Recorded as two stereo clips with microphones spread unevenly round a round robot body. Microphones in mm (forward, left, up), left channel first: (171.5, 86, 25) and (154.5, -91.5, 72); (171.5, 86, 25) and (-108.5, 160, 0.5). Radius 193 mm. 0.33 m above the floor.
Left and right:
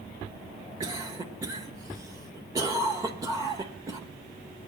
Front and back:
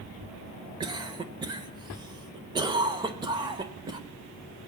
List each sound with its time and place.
0.8 s a cough: 175° right, 0.9 m